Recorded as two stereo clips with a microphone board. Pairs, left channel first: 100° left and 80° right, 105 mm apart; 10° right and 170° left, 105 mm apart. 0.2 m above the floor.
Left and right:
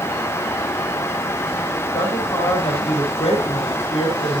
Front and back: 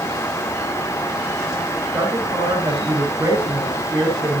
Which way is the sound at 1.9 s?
110° left.